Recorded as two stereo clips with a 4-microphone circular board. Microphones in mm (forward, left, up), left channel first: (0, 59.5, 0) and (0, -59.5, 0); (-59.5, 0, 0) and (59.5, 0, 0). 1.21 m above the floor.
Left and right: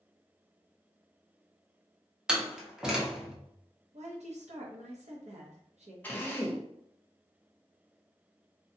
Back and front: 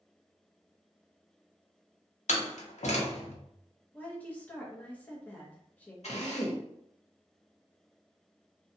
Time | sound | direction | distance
2.3 | a door slam | 175° right | 0.7 m
3.9 | a woman speaking | 105° right | 0.9 m
6.0 | a drill | 165° left | 0.8 m